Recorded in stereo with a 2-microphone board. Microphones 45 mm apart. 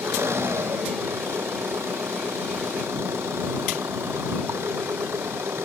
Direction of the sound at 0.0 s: 70° right (ahead or behind).